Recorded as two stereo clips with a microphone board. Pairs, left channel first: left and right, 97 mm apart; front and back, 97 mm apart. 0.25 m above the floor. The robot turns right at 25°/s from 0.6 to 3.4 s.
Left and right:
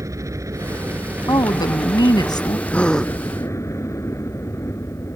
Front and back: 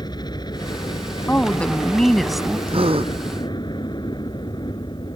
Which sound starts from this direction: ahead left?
A woman speaking, at 1.3 s.